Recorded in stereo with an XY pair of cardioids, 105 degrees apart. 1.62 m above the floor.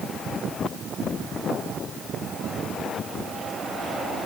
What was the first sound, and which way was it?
Only background noise.